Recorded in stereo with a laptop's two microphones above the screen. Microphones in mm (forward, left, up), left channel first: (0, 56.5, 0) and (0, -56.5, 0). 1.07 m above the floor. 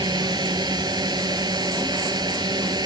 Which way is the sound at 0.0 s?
40° right (ahead or behind).